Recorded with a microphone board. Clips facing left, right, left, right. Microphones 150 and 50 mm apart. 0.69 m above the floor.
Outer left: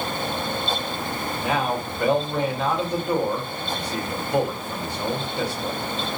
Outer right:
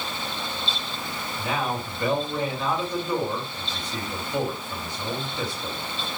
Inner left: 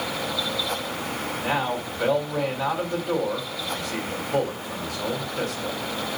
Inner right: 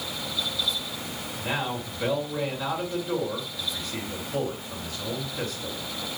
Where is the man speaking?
70° left (ahead or behind), 3 m.